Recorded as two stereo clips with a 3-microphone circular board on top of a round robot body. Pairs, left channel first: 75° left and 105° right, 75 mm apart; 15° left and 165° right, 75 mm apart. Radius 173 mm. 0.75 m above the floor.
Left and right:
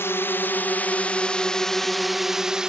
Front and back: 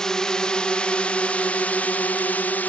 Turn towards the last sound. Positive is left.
turn(degrees=-35)